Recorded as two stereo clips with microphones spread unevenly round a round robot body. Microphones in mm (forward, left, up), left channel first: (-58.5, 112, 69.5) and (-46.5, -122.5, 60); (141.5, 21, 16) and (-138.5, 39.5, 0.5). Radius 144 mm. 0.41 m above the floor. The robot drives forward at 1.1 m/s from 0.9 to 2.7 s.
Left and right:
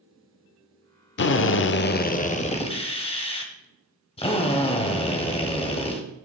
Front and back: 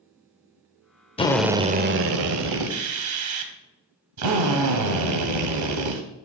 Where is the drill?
65° left, 0.8 m; by 6.0 s 160° left, 1.6 m.